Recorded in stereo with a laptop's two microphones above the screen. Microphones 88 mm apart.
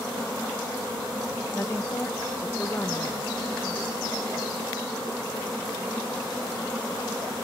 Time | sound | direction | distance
1.5 | a woman speaking | 30° left (ahead or behind) | 0.9 m